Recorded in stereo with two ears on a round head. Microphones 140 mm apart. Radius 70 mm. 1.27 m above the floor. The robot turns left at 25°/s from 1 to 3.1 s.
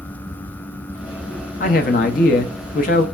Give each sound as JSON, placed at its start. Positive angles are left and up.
{"t": 1.6, "sound": "a man speaking", "azimuth_deg": 105, "distance_m": 0.6}